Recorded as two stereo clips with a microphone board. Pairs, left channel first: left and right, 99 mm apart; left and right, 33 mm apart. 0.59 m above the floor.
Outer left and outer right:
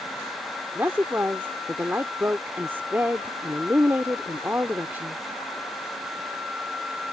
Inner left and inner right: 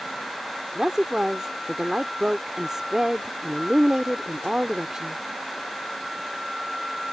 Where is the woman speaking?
20° right (ahead or behind).